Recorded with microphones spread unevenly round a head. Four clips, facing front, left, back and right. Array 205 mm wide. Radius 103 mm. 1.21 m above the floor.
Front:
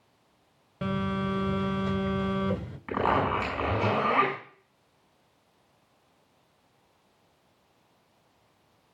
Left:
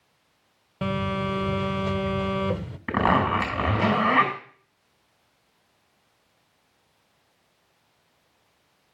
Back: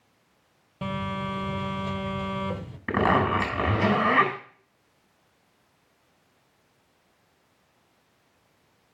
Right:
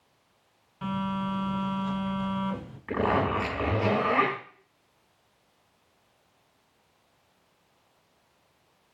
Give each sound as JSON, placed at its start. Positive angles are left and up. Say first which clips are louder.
{"t": 0.8, "sound": "a phone buzzing", "louder": "left 3 dB, front 1 dB", "azimuth_deg": 90, "distance_m": 1.4}
{"t": 2.9, "sound": "a zipper", "louder": "left 4 dB, back 3 dB", "azimuth_deg": 135, "distance_m": 7.0}